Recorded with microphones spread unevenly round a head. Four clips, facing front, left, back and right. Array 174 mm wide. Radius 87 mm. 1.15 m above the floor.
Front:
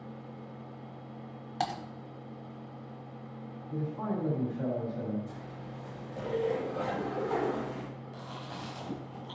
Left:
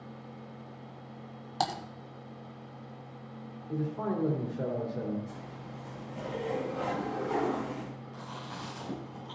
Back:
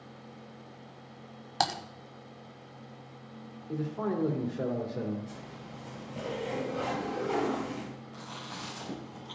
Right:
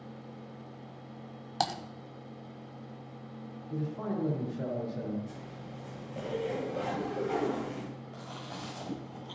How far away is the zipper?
About 5.5 m.